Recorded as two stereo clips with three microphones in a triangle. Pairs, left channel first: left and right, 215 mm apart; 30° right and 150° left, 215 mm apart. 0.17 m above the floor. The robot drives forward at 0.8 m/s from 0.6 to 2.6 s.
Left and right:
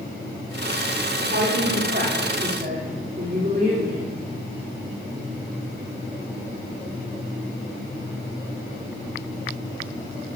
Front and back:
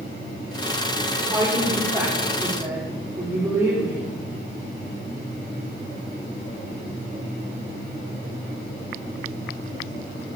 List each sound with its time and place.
1.2 s a woman speaking: 125° right, 5 m; by 4.1 s 135° right, 5.5 m